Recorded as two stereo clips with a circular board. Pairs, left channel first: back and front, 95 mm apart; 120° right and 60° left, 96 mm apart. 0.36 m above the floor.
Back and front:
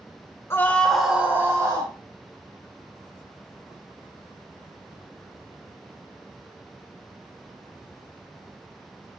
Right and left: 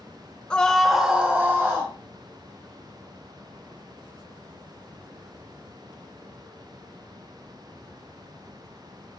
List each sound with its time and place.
0.5 s a scream: 175° left, 1.2 m; by 1.9 s 10° left, 1.5 m